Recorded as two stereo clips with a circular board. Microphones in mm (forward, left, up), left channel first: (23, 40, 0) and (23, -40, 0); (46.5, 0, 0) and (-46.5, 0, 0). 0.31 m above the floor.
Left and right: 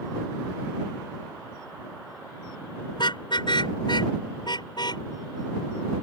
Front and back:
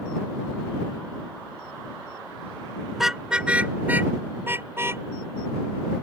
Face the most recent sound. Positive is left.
turn(degrees=120)